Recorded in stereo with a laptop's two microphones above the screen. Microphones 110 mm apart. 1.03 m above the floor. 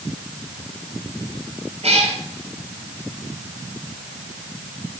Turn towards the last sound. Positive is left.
turn(degrees=-70)  # may be behind; listen again after turning